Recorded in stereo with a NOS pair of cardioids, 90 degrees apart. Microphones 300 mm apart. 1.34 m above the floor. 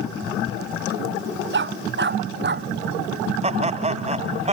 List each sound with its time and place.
1.5 s a dog barking: 40° right; by 2.7 s 35° right
3.4 s laughter: 20° right